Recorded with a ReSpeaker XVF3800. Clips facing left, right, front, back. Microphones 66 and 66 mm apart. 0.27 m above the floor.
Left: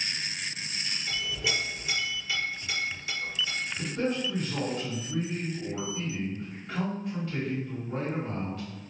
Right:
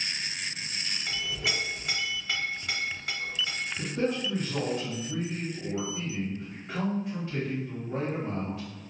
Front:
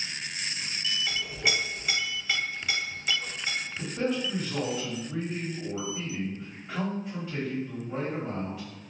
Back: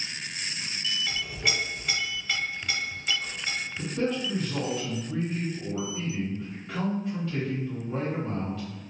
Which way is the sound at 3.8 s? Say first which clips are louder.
Right 1 dB, back 1 dB; 60° right.